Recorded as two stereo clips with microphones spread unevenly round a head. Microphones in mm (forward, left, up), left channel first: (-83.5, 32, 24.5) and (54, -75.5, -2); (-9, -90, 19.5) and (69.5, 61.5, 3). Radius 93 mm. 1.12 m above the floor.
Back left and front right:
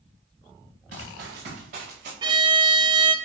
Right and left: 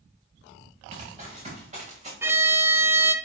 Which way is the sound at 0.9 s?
10° left.